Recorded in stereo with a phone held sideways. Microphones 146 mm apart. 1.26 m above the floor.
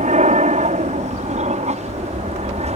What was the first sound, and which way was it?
An aircraft, 55° right (ahead or behind).